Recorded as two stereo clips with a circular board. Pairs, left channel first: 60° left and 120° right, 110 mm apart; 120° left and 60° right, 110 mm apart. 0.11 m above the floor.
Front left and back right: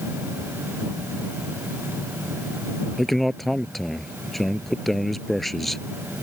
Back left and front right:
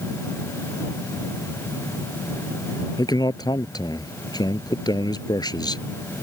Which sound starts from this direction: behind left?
A man speaking, at 3.0 s.